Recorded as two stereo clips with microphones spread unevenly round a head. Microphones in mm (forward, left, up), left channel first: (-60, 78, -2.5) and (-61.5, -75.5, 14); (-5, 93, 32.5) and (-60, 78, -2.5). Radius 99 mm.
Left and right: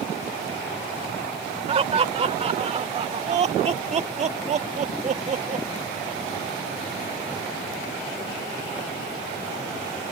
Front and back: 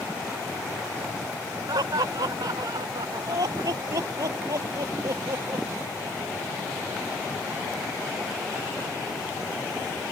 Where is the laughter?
140° right; by 5.7 s 130° right.